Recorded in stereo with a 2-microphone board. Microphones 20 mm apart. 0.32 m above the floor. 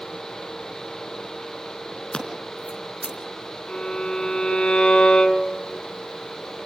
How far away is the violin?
About 3.5 m.